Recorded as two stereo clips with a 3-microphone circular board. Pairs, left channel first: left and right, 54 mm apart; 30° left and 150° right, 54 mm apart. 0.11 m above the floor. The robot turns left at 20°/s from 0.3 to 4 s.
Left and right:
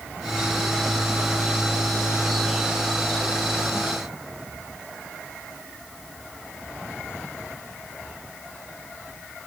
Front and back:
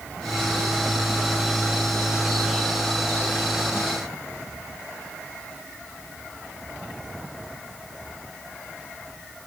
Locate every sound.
Only background noise.